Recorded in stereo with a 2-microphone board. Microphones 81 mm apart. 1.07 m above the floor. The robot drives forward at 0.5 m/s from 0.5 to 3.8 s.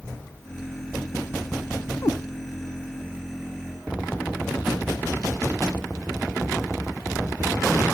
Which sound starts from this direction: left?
A cat meowing, at 2.0 s.